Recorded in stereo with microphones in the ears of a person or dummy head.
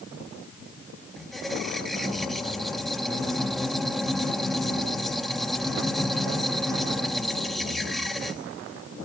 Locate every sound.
1.2 s a squeak: 5° right (ahead or behind), 1.1 m